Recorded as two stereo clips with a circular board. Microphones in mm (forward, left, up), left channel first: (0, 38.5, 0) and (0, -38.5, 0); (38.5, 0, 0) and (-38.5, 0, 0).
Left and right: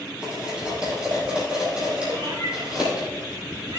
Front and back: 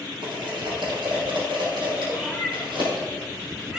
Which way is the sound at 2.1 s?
105° right.